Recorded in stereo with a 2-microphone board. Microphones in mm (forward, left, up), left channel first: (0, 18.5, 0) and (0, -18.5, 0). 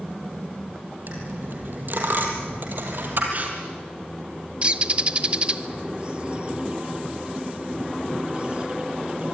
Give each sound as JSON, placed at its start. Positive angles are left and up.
{"t": 1.1, "sound": "a dropped coin", "side_deg": -55, "distance_m": 4.0}
{"t": 3.3, "sound": "tearing paper", "side_deg": -45, "distance_m": 5.5}
{"t": 4.6, "sound": "a bird", "side_deg": -30, "distance_m": 1.0}